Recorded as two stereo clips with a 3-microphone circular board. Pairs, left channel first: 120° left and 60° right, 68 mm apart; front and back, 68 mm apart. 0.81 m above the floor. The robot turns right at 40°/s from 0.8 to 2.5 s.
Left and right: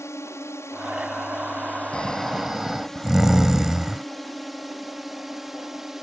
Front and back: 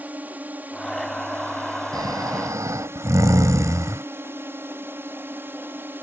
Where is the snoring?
165° right; by 4.0 s 140° right.